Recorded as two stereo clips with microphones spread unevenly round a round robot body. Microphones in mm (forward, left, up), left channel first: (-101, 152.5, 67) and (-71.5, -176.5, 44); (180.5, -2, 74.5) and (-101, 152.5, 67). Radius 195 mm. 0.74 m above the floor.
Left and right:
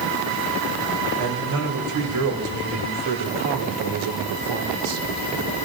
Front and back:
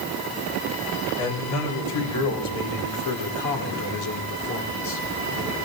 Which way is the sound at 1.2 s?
40° right.